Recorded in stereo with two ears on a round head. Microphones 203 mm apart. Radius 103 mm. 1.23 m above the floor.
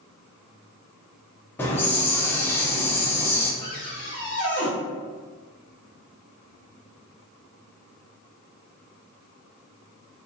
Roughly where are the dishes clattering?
I don't hear dishes clattering.